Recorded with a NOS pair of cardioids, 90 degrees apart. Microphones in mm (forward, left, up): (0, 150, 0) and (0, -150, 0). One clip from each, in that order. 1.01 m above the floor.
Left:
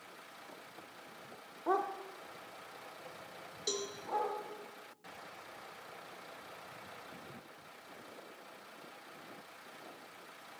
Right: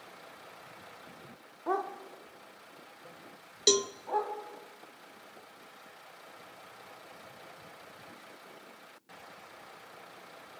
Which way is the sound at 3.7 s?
60° right.